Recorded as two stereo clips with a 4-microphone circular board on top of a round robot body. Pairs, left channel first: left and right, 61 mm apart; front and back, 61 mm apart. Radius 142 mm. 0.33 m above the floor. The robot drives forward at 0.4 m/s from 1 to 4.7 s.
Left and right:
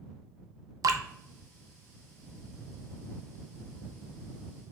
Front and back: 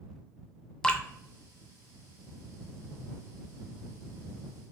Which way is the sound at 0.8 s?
75° right.